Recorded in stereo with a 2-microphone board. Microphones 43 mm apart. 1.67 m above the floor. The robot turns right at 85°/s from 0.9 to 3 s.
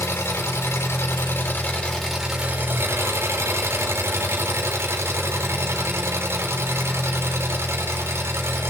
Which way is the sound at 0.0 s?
75° left.